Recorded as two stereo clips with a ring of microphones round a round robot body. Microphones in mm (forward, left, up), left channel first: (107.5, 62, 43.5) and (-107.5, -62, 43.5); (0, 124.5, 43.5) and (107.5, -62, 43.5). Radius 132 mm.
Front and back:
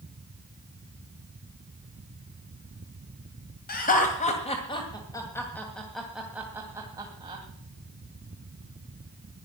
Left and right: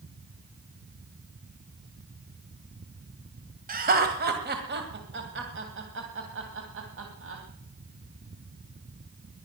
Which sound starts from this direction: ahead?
Laughter, at 3.7 s.